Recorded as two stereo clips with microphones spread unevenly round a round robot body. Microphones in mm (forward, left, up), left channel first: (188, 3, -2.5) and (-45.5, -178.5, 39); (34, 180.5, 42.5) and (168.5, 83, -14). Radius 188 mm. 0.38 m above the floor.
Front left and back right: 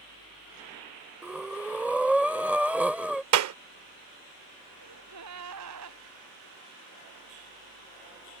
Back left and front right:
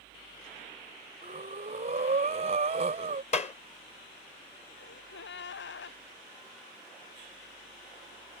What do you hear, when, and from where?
1.2 s breathing: 50° right
3.3 s a clap: 150° right
4.8 s a gasp: 165° left